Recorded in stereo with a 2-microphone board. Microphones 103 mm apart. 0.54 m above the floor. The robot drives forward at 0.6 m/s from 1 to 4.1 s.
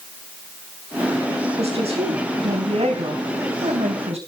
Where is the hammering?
I don't hear hammering.